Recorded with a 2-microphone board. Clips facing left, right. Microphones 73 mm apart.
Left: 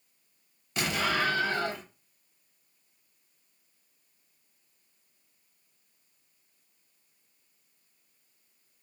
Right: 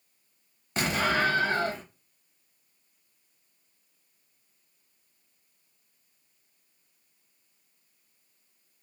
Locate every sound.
0.8 s an explosion: 35° right (ahead or behind), 0.8 m